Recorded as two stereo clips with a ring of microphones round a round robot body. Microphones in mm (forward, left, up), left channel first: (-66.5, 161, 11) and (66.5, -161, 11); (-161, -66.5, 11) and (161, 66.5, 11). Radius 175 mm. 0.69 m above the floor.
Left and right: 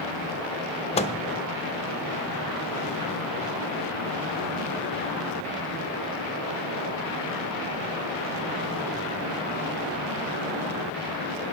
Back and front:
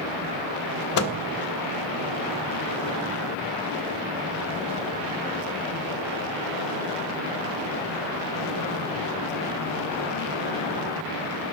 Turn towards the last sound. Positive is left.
turn(degrees=180)